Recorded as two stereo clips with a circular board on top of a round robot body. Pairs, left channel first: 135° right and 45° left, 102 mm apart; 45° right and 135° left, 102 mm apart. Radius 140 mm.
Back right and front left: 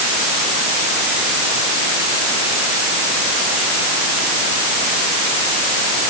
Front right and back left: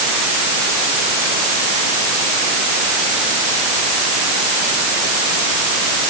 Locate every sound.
Only background noise.